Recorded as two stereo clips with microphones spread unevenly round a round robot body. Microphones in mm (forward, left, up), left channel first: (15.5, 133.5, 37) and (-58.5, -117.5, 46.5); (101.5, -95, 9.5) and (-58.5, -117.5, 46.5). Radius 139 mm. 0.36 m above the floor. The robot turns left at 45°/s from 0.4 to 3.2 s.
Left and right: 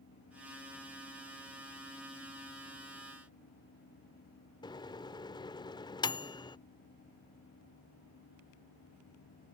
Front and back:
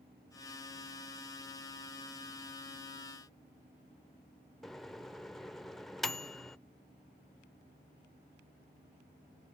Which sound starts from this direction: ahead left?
A microwave, at 4.6 s.